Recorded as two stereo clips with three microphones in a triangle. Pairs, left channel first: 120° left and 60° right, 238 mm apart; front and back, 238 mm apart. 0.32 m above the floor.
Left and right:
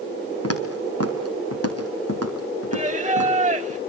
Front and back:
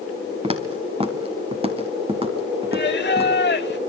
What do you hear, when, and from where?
0.4 s footsteps: 115° left, 3 m
2.7 s singing: 15° right, 0.6 m